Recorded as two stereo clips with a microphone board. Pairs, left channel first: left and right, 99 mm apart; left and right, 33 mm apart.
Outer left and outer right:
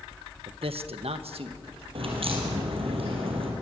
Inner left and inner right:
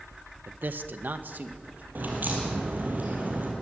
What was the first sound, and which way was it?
A man speaking, 60° right (ahead or behind).